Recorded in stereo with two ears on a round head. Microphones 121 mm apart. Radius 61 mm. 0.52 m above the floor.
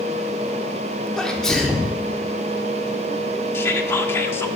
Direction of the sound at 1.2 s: 5° left (ahead or behind).